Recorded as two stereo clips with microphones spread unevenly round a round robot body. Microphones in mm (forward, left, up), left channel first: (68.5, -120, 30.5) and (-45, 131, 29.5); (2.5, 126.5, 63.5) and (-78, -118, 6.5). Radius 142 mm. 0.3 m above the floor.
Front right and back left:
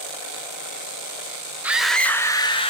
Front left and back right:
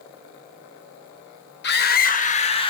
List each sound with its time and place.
1.6 s a scream: 35° left, 1.4 m; by 2.7 s 5° right, 1.6 m